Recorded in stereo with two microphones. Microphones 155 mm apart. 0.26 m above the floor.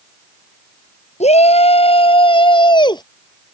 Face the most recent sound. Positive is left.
turn(degrees=25)  # may be behind; listen again after turning